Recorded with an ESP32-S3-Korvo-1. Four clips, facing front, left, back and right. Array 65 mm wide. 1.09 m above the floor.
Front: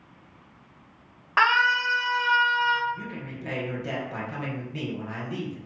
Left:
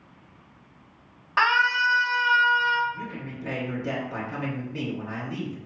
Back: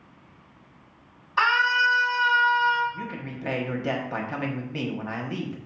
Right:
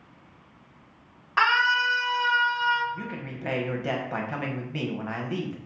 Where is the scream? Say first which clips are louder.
Left 1 dB, even; 5° left, 1.7 m; by 2.8 s 30° left, 1.2 m.